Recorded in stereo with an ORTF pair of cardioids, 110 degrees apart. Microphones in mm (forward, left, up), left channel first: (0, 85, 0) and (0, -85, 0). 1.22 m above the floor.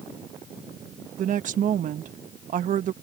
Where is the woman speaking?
50° right.